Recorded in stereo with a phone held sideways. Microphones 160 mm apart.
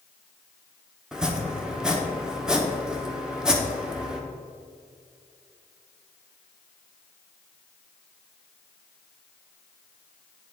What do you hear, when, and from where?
1.1 s chopping: 5° right (ahead or behind), 0.8 m